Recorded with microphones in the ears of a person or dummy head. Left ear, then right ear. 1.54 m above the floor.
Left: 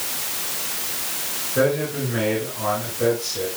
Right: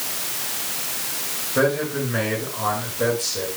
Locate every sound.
1.6 s a man speaking: 30° right (ahead or behind), 8 m